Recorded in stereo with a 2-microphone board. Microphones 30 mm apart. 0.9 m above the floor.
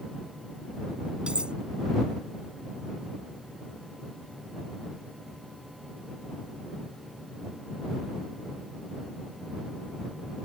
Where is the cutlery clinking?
30° right (ahead or behind).